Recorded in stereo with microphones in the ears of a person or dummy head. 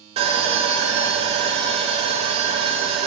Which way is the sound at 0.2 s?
30° right (ahead or behind).